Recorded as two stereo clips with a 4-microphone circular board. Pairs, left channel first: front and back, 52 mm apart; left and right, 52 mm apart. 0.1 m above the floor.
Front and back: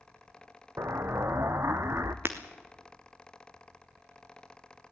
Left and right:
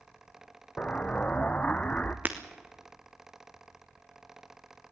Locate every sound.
0.8 s an explosion: 155° left, 1.2 m
2.2 s breaking glass: 140° right, 1.7 m